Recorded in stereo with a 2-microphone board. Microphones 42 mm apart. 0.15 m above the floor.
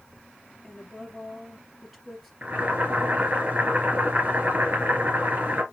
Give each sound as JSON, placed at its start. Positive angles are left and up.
{"t": 0.6, "sound": "a woman speaking", "side_deg": 5, "distance_m": 3.0}
{"t": 2.4, "sound": "boiling", "side_deg": -40, "distance_m": 3.0}